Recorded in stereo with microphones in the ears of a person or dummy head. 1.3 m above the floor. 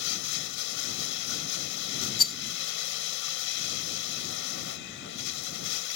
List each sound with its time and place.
0.0 s running water: 65° left (ahead or behind)
2.2 s a rattle: 50° left (ahead or behind)